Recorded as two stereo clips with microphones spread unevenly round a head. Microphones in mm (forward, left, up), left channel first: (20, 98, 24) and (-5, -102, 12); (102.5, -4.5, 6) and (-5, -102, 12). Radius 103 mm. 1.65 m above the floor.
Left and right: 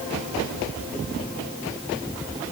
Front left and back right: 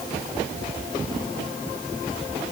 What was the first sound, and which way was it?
Only background noise.